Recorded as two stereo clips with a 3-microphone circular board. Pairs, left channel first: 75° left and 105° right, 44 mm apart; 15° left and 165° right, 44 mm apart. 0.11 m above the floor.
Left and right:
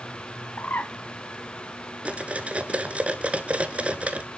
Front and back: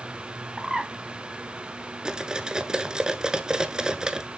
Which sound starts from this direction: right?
Cutlery clinking, at 2.0 s.